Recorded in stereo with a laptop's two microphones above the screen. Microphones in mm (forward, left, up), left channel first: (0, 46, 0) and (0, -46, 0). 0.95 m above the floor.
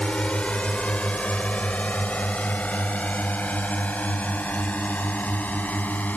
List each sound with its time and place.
0.0 s a drone: 10° left (ahead or behind); by 6.2 s 15° left (ahead or behind)